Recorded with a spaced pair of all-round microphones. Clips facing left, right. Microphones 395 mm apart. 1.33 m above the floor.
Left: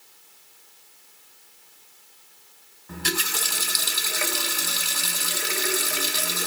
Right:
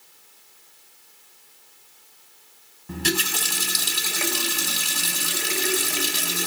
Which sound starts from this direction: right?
A running tap, at 2.9 s.